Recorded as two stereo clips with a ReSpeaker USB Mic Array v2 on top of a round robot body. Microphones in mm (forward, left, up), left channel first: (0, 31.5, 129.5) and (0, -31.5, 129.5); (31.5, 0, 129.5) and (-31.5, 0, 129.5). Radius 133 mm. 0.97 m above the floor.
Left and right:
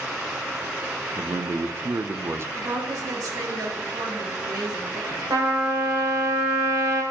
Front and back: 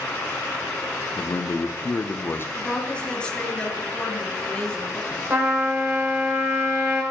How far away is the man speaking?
About 0.7 m.